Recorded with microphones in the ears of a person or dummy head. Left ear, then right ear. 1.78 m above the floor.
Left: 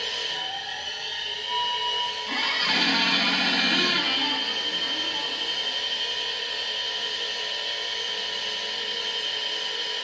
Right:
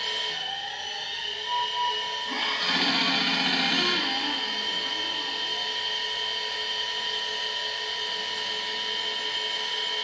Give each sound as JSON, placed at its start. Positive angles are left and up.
{"t": 0.0, "sound": "a machine running", "side_deg": -30, "distance_m": 1.4}
{"t": 2.3, "sound": "a squeak", "side_deg": 0, "distance_m": 0.9}